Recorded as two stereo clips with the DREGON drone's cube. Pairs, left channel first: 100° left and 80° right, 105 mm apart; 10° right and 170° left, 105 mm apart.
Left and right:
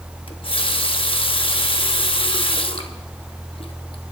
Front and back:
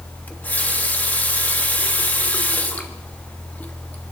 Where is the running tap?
65° left, 1.0 m.